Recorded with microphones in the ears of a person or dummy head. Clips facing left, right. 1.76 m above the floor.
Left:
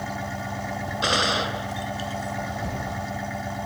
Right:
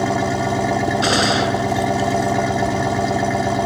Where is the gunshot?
25° right (ahead or behind).